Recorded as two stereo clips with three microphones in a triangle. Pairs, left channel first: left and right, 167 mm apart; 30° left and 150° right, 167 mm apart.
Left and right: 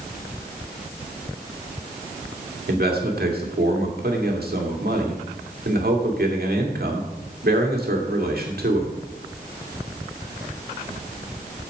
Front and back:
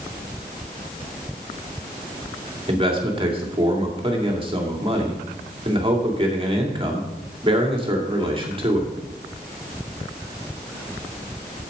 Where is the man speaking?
95° right, 2 m.